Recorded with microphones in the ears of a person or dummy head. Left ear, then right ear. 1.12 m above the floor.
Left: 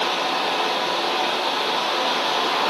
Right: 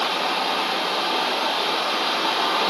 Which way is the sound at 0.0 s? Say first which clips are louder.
Left 1 dB; 55° right (ahead or behind).